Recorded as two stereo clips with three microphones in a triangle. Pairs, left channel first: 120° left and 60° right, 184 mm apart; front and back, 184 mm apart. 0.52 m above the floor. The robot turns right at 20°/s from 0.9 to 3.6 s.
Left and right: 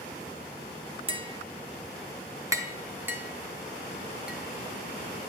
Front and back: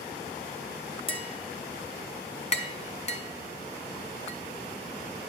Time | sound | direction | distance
1.1 | tapping | 30° right | 0.7 m